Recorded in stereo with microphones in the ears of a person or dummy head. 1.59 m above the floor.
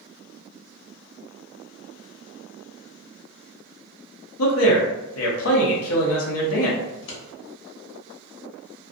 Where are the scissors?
65° left (ahead or behind), 1.0 m.